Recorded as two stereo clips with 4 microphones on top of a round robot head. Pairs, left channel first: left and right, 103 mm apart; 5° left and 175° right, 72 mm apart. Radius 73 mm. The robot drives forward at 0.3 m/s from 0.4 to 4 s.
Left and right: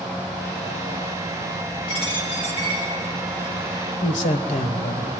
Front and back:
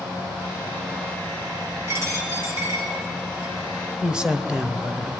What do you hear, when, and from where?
1.9 s a dropped coin: 140° left, 6 m
4.0 s a man speaking: 105° left, 1.3 m